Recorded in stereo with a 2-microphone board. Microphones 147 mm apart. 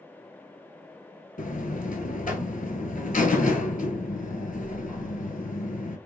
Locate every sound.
1.4 s a buzzer: 65° left (ahead or behind), 0.8 m